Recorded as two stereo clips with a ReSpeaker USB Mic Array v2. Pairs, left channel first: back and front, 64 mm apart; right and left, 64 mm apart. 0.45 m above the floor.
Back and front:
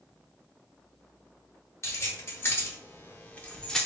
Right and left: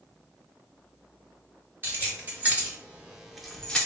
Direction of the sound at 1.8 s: 140° left.